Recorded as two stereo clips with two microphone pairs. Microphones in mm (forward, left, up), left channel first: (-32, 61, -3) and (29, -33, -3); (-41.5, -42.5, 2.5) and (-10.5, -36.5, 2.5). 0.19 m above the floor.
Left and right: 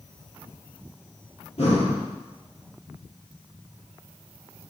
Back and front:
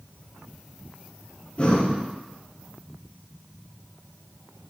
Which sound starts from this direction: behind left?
Breathing, at 1.6 s.